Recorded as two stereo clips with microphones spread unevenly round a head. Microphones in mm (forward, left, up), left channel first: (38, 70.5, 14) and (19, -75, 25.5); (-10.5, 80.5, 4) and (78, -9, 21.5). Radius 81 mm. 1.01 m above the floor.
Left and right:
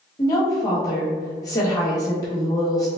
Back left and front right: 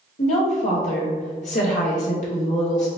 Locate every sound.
0.2 s a woman speaking: 150° left, 1.5 m